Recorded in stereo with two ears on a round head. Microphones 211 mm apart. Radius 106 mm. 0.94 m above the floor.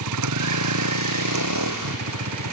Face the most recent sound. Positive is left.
turn(degrees=-80)